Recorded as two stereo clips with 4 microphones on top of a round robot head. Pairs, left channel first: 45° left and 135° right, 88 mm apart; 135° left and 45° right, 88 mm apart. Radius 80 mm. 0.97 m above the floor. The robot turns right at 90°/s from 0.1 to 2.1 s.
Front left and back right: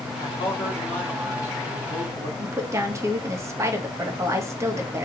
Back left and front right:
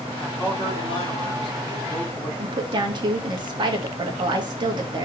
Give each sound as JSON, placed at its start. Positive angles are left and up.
{"t": 0.2, "sound": "a man speaking", "azimuth_deg": 50, "distance_m": 3.0}
{"t": 2.4, "sound": "a woman speaking", "azimuth_deg": -80, "distance_m": 2.0}